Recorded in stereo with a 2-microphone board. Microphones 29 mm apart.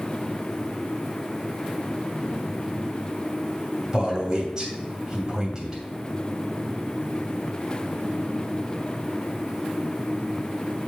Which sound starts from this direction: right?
A man speaking, at 3.9 s.